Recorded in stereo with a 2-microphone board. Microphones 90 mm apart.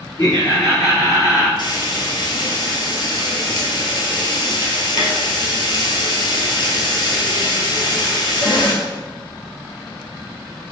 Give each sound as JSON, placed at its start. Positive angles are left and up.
{"t": 0.2, "sound": "laughter", "side_deg": 40, "distance_m": 1.8}
{"t": 1.6, "sound": "frying", "side_deg": 55, "distance_m": 1.1}